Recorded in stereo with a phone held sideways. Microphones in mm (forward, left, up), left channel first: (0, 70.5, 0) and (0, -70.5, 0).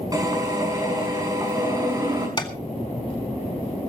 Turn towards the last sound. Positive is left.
turn(degrees=30)  # may be behind; listen again after turning